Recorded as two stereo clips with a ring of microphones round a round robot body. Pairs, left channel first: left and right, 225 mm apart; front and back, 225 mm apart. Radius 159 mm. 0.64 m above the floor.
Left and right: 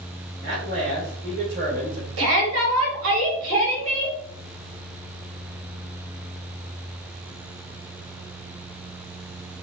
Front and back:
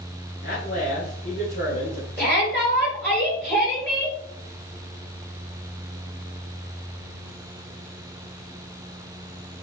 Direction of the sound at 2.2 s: 85° right.